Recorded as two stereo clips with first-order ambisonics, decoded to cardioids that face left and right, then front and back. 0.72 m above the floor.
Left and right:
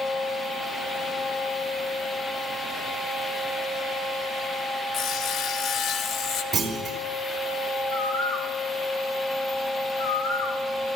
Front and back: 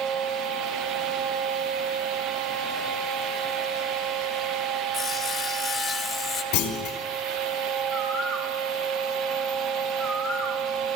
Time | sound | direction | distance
4.9 | sawing | 60° left | 0.6 m
6.5 | a clunk | 20° right | 1.9 m
7.9 | a bird | 105° left | 1.6 m